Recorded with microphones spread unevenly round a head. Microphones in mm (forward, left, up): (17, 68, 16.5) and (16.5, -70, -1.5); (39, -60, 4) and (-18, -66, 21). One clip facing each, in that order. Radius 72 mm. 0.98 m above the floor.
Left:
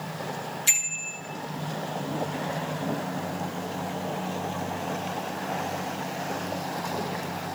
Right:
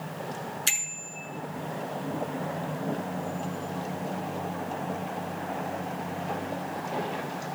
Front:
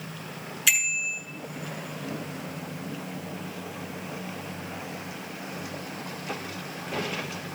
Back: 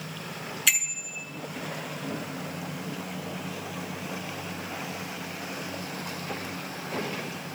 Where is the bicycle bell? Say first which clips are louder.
Left 1 dB, front 4 dB; 80° right, 8.5 m.